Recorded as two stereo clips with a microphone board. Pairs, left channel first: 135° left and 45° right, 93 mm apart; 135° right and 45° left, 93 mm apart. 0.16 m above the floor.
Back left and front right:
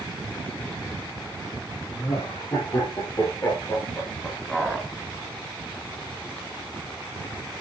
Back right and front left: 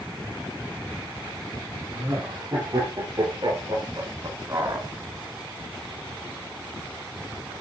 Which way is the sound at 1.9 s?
90° left.